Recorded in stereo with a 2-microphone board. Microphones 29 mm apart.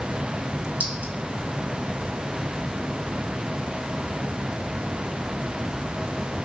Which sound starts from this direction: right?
A clink, at 0.8 s.